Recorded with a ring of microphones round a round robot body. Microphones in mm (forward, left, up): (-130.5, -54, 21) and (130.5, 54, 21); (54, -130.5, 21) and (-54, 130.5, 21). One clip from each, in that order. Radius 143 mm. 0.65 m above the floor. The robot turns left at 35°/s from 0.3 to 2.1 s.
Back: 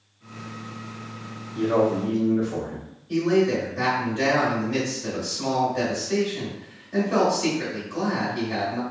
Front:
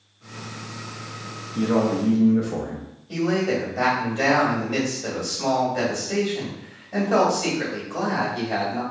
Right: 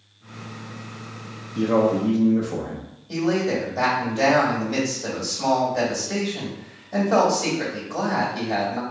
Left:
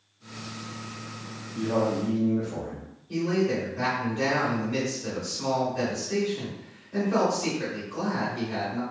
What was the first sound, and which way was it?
A man speaking, 10° right.